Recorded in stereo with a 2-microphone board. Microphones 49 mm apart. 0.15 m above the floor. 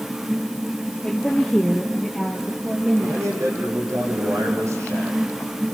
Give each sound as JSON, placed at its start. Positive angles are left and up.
{"t": 1.0, "sound": "a woman speaking", "side_deg": 15, "distance_m": 3.0}
{"t": 3.0, "sound": "a man speaking", "side_deg": -80, "distance_m": 9.5}